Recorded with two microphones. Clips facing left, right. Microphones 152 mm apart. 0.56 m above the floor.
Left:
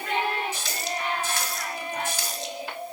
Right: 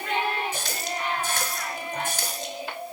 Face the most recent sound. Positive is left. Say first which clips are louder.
# even
turn(degrees=-55)  # may be behind; listen again after turning